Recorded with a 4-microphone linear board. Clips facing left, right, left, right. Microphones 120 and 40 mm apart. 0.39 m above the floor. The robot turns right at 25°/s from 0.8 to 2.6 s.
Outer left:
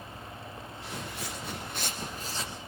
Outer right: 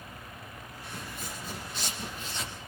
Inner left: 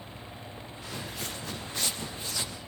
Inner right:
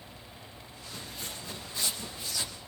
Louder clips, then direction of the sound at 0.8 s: Outer left 2 dB, inner left 4 dB; 85° left.